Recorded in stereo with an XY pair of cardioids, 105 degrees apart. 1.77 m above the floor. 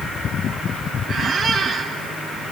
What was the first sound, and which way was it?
A squeak, 50° right.